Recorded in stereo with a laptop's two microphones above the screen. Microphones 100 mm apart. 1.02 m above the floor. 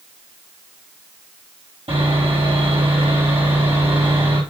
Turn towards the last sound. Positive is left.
turn(degrees=-80)